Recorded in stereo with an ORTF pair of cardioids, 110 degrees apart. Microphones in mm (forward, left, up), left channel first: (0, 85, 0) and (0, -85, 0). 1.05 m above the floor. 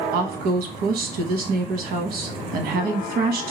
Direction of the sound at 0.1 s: 70° right.